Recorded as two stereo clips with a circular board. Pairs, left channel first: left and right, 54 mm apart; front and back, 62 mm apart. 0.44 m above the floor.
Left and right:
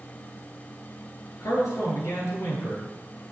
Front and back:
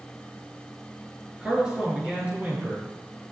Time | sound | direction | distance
1.4 | a man speaking | 105° left | 5.5 m